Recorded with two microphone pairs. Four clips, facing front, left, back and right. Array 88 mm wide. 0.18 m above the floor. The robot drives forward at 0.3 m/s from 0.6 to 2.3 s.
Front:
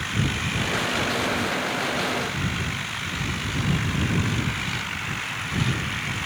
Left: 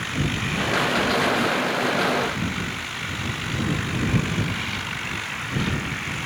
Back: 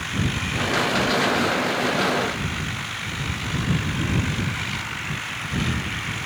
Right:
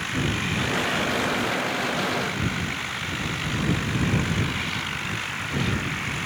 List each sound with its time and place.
Only background noise.